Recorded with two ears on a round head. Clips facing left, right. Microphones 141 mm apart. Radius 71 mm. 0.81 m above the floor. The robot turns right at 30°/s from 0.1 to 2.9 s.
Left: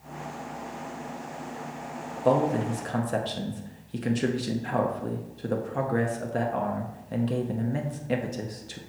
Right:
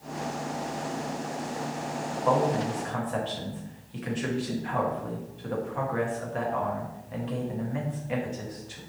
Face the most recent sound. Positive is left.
turn(degrees=40)  # may be behind; listen again after turning